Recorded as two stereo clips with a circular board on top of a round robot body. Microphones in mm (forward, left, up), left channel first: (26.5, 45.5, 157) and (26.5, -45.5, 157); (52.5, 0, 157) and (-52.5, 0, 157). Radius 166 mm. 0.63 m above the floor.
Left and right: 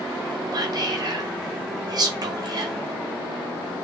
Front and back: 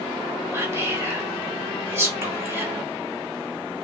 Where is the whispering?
120° right, 1.8 m.